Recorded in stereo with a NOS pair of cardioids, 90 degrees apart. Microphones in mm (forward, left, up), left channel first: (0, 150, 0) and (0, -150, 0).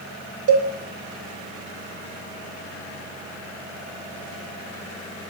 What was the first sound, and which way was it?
A cowbell, 55° right.